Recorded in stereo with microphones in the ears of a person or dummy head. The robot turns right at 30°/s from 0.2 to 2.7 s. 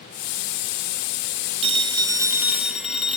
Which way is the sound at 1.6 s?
35° right.